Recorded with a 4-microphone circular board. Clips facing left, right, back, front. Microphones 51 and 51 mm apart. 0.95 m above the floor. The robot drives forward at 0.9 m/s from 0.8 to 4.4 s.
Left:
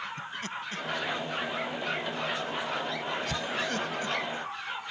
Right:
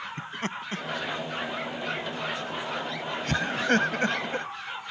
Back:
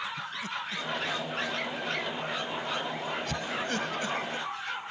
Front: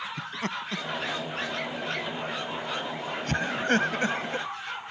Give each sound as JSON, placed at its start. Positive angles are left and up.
{"t": 0.2, "sound": "laughter", "azimuth_deg": -35}